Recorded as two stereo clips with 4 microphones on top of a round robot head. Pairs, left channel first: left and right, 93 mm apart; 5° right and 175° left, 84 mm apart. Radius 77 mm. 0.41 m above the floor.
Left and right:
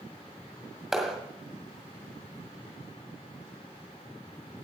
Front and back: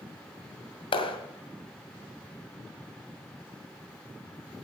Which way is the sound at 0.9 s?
5° right.